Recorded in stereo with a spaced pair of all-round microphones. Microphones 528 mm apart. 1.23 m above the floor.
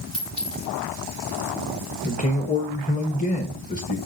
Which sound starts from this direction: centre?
A man speaking, at 2.0 s.